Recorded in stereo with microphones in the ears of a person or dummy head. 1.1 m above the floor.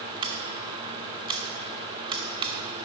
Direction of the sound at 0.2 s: 35° right (ahead or behind).